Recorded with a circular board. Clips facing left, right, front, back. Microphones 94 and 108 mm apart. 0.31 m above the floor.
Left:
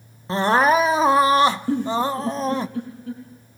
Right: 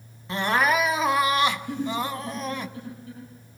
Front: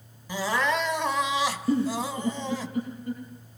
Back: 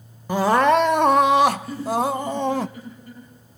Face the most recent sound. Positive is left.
turn(degrees=65)